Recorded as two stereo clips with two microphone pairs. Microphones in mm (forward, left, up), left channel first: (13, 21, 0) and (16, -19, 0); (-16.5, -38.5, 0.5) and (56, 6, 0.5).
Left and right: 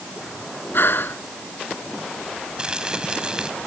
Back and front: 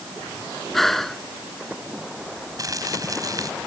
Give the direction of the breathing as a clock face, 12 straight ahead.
8 o'clock.